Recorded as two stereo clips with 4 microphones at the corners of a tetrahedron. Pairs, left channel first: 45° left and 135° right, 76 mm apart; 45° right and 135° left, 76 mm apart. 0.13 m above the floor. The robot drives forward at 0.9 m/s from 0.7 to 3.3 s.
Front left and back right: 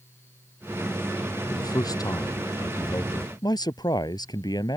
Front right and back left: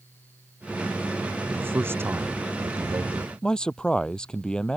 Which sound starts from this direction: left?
A man speaking, at 1.5 s.